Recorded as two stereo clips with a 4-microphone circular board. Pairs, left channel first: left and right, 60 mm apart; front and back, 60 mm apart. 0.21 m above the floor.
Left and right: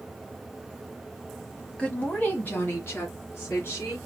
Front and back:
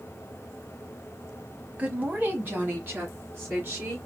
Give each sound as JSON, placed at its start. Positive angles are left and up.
{"t": 1.8, "sound": "a woman speaking", "azimuth_deg": 140, "distance_m": 1.2}